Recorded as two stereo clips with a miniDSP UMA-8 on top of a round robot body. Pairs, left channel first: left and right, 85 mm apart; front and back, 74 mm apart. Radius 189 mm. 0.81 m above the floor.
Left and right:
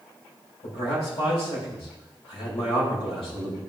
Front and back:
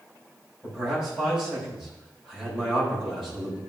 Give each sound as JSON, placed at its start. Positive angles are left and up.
{"t": 0.6, "sound": "a man speaking", "azimuth_deg": 95, "distance_m": 4.5}